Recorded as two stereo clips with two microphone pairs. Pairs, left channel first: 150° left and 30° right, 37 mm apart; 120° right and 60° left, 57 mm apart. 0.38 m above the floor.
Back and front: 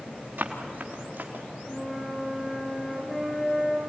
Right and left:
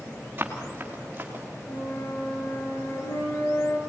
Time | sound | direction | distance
0.4 | running footsteps | straight ahead | 3.5 m
1.7 | a flute | 120° right | 3.5 m